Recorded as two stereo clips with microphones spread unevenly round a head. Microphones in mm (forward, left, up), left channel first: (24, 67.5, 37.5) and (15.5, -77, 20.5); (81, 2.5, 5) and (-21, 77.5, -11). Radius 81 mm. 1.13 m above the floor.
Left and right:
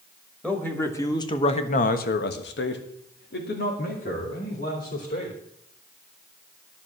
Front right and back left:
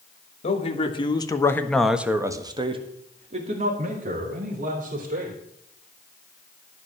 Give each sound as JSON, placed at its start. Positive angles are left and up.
{"t": 0.4, "sound": "a man speaking", "azimuth_deg": 5, "distance_m": 2.5}